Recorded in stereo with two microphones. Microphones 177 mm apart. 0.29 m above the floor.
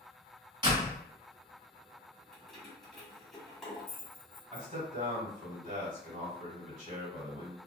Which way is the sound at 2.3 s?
Centre (ahead or behind).